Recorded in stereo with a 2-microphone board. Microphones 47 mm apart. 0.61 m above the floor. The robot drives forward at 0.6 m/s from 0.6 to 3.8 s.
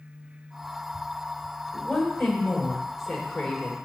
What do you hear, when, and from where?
1.7 s a woman speaking: 5° left (ahead or behind), 3 m